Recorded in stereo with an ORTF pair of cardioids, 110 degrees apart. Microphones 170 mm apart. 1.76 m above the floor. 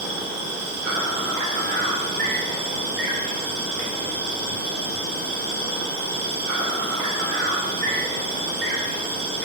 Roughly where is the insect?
Right.